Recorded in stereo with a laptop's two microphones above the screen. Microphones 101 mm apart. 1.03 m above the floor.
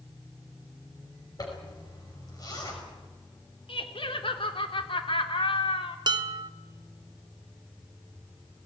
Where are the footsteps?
I don't hear footsteps.